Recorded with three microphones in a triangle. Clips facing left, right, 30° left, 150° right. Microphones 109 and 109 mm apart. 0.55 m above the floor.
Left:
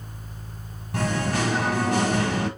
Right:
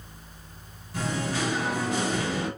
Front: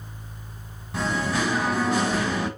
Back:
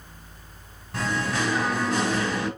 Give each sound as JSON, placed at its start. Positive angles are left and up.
{"t": 0.9, "sound": "singing", "azimuth_deg": 115, "distance_m": 1.1}